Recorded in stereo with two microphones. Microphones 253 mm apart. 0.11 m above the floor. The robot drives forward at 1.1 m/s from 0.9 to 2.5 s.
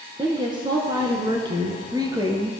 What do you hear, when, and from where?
0.2 s a woman speaking: 20° right (ahead or behind), 1.2 m; by 2.5 s 10° right (ahead or behind), 1.8 m